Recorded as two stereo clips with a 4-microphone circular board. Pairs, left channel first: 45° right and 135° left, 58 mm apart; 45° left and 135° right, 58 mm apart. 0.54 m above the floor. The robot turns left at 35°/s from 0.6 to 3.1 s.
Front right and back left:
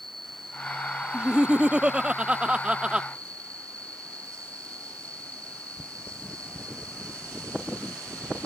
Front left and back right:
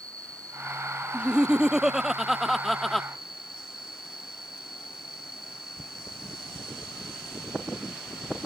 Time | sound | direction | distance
0.0 | an insect | 130° right | ?
1.1 | laughter | straight behind | ?